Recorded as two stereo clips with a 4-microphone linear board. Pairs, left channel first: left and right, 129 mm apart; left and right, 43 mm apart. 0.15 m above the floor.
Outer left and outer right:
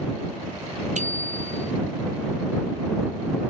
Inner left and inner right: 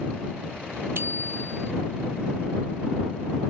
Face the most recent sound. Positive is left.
turn(degrees=-70)  # may be behind; listen again after turning